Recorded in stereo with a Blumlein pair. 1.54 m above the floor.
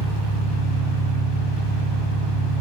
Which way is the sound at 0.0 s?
30° left.